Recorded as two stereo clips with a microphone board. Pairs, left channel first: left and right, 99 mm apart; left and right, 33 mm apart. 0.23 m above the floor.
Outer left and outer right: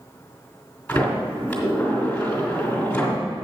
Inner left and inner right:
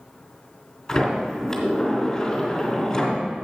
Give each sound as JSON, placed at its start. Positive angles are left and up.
{"t": 0.9, "sound": "a sliding door", "side_deg": 15, "distance_m": 2.5}